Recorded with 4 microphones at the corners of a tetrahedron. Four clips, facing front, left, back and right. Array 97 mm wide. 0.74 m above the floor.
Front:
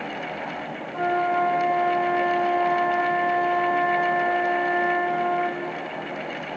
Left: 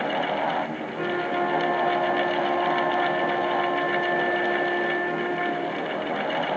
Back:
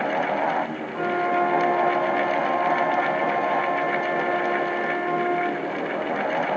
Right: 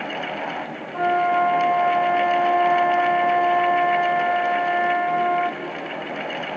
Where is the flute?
70° right, 2.5 m.